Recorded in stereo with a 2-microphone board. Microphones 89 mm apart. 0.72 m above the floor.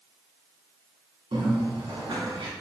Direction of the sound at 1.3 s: 75° right (ahead or behind).